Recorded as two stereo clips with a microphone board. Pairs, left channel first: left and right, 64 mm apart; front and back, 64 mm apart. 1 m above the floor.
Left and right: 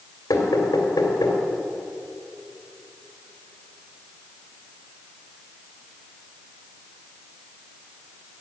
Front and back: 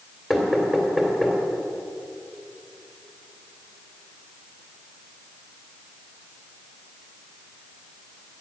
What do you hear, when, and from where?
0.3 s knocking: 85° left, 2.5 m